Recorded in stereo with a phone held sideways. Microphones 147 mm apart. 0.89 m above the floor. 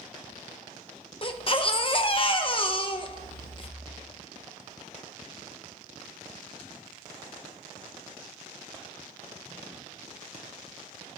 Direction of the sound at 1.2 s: 40° left (ahead or behind).